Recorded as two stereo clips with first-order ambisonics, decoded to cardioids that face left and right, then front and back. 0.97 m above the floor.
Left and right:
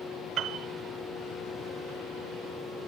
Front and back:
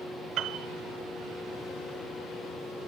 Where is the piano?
150° right, 1.0 m.